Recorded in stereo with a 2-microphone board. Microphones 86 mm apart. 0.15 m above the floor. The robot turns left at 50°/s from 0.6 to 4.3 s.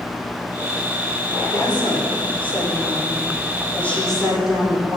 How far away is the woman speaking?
About 8.5 m.